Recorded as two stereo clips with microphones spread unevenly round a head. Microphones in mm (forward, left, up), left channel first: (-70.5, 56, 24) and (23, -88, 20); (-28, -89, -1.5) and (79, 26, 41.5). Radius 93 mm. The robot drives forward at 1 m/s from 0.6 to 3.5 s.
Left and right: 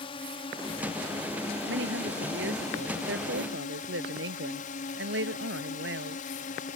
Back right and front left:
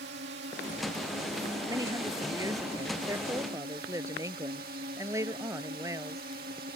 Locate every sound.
0.0 s a drone: 65° left; by 6.8 s 85° left
1.7 s a woman speaking: 20° right; by 6.2 s 25° right